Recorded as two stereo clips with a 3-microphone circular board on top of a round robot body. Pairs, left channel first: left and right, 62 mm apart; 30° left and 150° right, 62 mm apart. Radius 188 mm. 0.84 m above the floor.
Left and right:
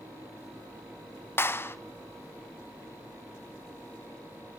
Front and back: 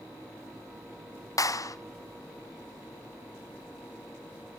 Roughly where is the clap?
Ahead left.